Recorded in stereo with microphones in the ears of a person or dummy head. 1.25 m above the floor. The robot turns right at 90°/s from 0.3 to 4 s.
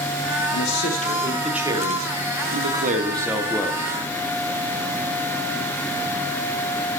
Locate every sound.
0.5 s a man speaking: 95° left, 1.4 m; by 4.2 s 50° left, 1.4 m